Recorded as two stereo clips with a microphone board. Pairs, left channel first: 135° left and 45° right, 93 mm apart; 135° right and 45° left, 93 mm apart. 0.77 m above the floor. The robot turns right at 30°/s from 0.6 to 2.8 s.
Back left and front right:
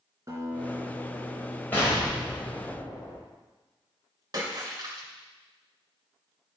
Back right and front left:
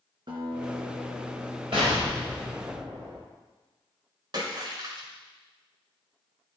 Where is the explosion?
65° left, 4.5 m; by 3.2 s 95° left, 4.5 m.